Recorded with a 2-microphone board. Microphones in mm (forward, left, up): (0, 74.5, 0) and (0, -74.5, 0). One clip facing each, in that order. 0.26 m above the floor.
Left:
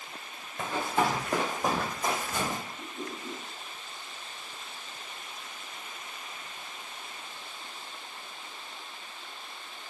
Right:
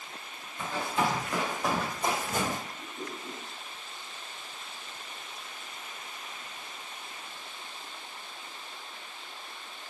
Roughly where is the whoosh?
Left.